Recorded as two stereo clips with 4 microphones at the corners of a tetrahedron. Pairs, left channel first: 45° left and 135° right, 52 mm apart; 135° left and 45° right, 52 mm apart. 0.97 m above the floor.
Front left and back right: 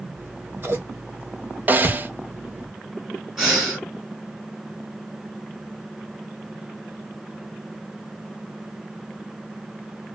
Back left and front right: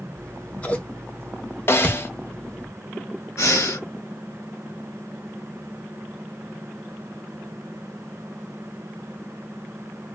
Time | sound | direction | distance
0.2 | scissors | 165° right | 0.8 m
1.7 | a snare drum | 175° left | 0.5 m
3.4 | breathing | 145° left | 1.7 m